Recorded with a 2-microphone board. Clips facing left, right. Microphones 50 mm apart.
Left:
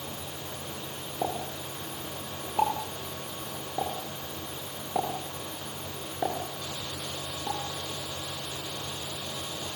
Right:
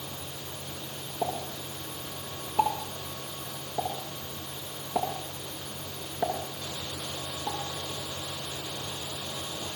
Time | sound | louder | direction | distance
1.2 | a pop | even | 10° left (ahead or behind) | 9 m